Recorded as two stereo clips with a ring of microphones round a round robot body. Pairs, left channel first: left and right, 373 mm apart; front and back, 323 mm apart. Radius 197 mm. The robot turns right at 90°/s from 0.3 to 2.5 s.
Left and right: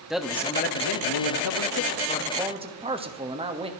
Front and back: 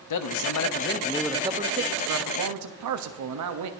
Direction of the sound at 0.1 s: Straight ahead.